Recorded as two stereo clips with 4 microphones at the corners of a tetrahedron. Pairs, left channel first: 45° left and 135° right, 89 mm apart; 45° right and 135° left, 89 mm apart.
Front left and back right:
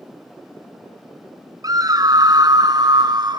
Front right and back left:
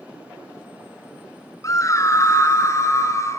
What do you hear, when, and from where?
1.6 s a scream: 95° right, 3.5 m; by 3.4 s 100° right, 4.5 m